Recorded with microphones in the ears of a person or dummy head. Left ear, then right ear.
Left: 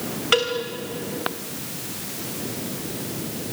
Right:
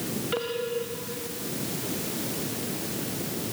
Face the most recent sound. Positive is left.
turn(degrees=35)  # may be behind; listen again after turning